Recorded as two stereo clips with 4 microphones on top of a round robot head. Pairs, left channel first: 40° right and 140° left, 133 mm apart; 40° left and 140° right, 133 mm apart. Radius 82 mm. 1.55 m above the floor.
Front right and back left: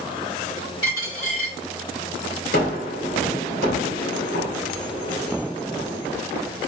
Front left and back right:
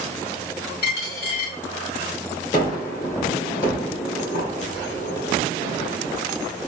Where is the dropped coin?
25° left, 2 m.